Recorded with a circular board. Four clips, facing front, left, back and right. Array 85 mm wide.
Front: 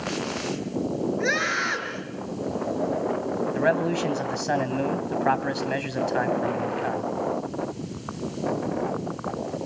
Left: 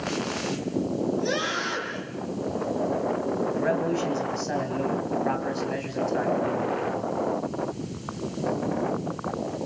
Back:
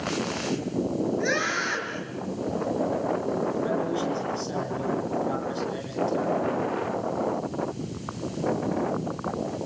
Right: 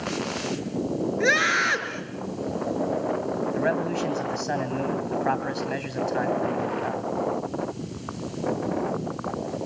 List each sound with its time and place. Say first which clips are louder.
1.2 s a scream: right 5 dB, front 1 dB; 75° right, 5.5 m
3.5 s a man speaking: right 1 dB, front 3 dB; 15° right, 2.5 m